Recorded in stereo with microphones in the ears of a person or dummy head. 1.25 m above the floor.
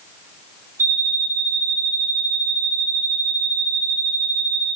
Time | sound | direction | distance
0.8 | an alarm clock | 15° left (ahead or behind) | 2.0 m